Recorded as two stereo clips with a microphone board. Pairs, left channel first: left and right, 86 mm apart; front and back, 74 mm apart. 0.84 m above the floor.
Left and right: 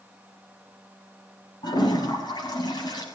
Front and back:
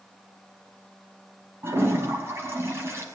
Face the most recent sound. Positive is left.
turn(degrees=125)